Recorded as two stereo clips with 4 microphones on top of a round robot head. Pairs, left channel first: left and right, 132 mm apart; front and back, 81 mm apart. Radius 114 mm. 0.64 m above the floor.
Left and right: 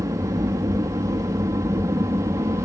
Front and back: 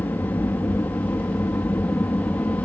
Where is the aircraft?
50° right.